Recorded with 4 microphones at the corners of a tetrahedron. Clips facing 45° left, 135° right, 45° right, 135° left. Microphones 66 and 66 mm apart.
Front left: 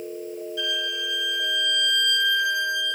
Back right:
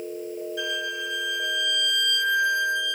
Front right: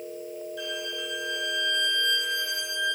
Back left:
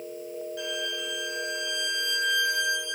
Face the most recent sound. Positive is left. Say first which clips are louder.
# front left 1 dB, back left 1 dB
turn(degrees=165)